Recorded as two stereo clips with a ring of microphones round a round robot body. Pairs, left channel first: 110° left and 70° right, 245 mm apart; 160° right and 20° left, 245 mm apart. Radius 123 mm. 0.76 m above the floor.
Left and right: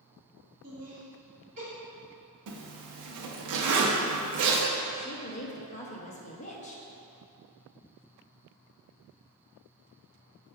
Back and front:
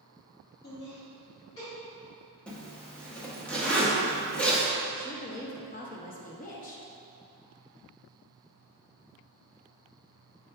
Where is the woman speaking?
160° left, 0.5 m.